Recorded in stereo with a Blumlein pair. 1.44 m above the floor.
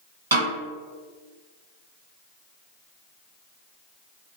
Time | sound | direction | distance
0.3 | a snare drum | 70° right | 1.2 m